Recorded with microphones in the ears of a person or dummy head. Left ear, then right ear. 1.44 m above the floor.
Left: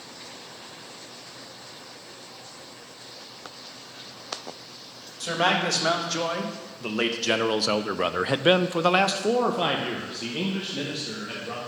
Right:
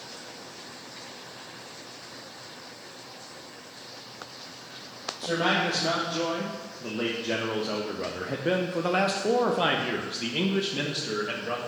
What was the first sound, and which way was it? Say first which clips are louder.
A man speaking: left 2 dB; 55° left (ahead or behind).